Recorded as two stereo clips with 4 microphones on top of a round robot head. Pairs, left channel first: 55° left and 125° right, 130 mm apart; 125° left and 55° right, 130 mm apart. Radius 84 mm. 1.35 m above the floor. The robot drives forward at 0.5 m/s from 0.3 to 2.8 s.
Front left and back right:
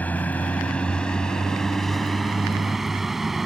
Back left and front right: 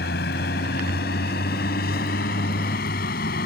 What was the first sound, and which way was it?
A vehicle, 135° left.